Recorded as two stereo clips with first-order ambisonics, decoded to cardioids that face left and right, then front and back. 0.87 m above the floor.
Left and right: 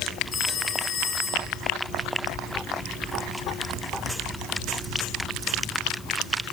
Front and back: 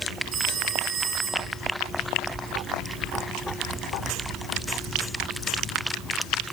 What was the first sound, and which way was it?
A phone ringing, 150° left.